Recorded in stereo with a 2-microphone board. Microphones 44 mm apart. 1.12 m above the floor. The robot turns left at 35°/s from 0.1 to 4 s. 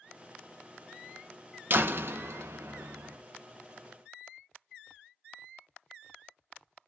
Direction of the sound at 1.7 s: 50° right.